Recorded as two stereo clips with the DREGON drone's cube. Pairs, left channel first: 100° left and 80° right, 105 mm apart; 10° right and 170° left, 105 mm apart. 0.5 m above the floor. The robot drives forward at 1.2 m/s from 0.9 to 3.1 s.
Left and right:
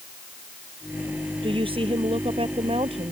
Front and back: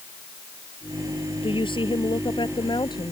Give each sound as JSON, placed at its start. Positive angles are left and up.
{"t": 1.4, "sound": "a woman speaking", "azimuth_deg": -45}